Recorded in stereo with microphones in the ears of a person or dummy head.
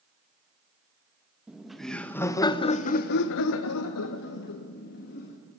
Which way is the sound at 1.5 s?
Centre (ahead or behind).